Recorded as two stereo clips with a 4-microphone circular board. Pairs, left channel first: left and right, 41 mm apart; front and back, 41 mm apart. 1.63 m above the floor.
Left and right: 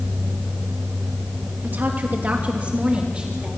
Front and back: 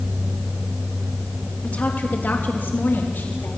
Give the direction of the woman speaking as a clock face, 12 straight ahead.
2 o'clock.